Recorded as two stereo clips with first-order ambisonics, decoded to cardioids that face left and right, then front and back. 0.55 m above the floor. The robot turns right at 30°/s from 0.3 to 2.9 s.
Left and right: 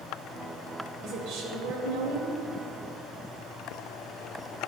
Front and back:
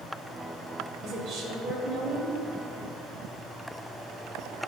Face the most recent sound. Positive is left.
turn(degrees=-80)